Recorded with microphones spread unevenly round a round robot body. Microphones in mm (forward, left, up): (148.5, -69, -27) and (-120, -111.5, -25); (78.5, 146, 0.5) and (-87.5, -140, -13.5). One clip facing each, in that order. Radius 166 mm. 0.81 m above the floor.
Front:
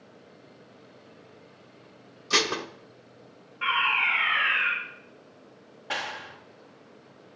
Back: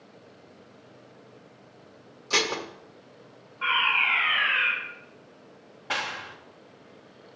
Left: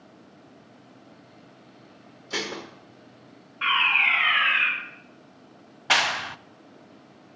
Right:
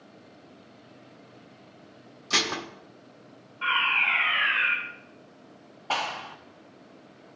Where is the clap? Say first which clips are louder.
Back 1 dB, left 3 dB; 105° left, 0.5 m.